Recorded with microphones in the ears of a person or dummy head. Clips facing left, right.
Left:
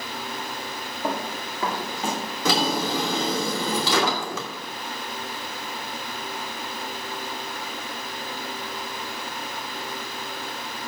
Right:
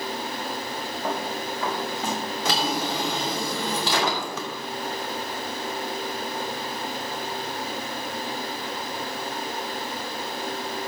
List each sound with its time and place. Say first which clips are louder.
1.0 s running footsteps: left 1 dB; 55° left (ahead or behind), 6.5 m; by 2.2 s 50° left (ahead or behind), 6 m
2.5 s a drawer: left 4 dB; 75° left (ahead or behind), 2.5 m